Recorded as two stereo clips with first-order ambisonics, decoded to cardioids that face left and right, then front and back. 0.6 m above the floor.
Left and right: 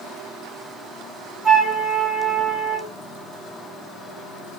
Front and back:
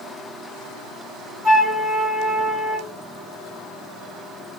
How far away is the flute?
About 1.9 m.